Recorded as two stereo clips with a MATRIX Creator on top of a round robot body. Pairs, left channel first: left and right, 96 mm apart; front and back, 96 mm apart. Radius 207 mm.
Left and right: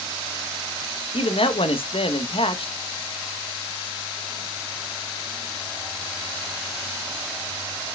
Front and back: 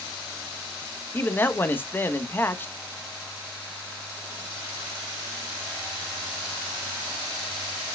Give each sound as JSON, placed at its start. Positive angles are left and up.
{"t": 1.1, "sound": "a man speaking", "azimuth_deg": 70, "distance_m": 1.5}